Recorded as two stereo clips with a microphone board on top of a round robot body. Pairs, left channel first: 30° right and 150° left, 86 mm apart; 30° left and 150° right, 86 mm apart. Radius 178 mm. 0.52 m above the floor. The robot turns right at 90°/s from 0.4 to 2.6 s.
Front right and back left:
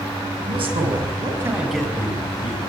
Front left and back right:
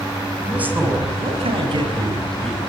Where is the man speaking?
125° left, 6.5 m; by 2.6 s 45° right, 6.5 m.